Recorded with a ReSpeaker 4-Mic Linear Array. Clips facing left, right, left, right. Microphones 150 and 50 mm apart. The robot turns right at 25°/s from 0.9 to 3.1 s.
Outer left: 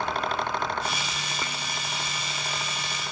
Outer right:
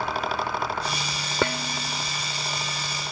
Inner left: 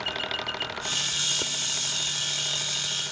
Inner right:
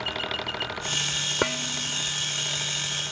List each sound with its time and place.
1.4 s dishes clattering: 85° right; by 2.1 s 70° right (ahead or behind)